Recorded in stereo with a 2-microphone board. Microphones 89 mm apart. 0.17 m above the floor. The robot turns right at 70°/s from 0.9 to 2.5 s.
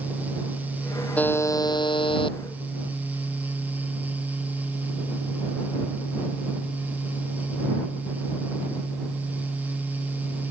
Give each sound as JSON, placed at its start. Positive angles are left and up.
{"t": 1.2, "sound": "a buzzer", "azimuth_deg": 15}